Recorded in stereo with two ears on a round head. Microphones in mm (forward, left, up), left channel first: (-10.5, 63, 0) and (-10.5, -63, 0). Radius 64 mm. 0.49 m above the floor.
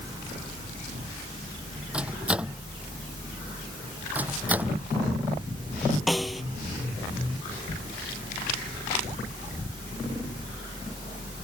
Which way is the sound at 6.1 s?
Centre (ahead or behind).